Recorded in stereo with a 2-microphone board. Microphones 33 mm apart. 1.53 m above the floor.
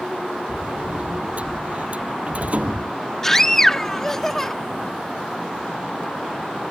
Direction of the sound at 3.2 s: 10° left (ahead or behind).